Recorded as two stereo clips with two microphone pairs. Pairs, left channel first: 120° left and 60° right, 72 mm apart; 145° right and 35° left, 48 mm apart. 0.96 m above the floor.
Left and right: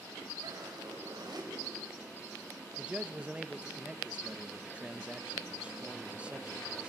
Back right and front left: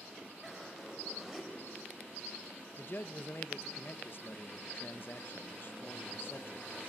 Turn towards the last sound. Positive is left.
turn(degrees=-130)